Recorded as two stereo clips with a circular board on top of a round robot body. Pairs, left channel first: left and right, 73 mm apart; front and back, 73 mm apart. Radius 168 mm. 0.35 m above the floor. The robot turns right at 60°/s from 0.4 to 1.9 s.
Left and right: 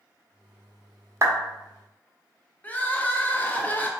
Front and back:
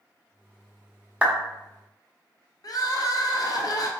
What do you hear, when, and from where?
1.2 s a clap: 110° right, 1.3 m; by 1.4 s 105° right, 1.3 m
2.6 s crying: 25° left, 0.9 m